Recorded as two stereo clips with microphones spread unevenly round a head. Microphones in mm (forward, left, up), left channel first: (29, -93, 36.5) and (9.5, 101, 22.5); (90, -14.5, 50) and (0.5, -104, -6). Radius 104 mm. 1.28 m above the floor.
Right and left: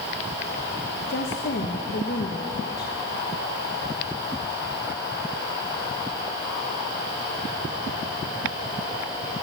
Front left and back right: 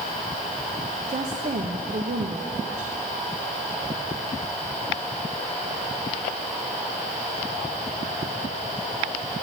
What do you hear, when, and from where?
1.1 s a woman speaking: 125° right, 1.9 m